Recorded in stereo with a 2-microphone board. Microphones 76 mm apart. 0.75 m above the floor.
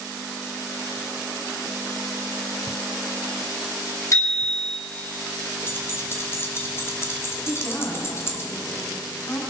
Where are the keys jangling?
35° left (ahead or behind), 2 m.